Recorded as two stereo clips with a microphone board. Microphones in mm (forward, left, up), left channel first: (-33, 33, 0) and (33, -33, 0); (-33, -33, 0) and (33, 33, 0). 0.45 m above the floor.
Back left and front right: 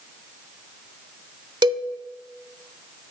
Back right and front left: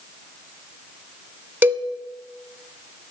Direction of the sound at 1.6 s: 25° right.